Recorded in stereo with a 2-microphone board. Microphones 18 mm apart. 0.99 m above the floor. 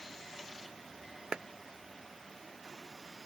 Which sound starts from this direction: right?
A clap, at 1.3 s.